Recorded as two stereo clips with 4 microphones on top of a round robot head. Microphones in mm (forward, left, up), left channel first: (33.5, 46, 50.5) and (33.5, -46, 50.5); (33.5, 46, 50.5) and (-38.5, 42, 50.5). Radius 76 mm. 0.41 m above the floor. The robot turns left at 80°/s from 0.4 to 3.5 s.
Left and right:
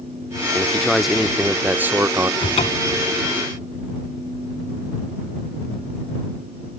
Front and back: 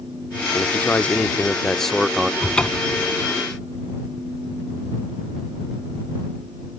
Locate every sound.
0.5 s a man speaking: 30° left; by 2.3 s 110° right
2.4 s a cupboard door: 95° left; by 3.0 s 45° left